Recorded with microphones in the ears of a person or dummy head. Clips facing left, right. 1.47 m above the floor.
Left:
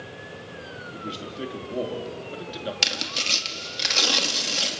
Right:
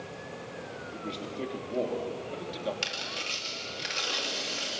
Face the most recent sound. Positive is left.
turn(degrees=80)